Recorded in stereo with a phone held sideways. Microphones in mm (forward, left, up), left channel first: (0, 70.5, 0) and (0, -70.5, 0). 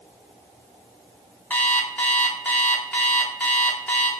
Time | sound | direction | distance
1.5 | an alarm clock | 10° left (ahead or behind) | 0.7 m